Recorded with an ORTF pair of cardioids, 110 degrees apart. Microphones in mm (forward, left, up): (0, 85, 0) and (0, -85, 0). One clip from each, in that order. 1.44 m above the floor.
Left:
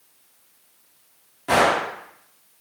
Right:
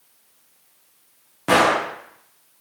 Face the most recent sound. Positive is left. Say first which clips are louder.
# right 2 dB
turn(degrees=-50)